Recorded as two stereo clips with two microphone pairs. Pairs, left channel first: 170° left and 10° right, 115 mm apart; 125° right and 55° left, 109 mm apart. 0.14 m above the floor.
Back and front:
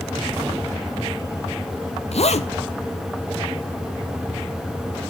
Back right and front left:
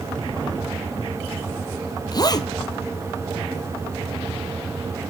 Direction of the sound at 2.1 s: 175° right.